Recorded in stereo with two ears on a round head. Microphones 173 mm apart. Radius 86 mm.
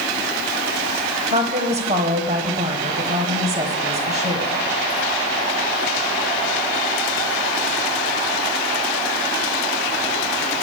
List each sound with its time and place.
1.3 s a woman speaking: 35° right (ahead or behind), 1.3 m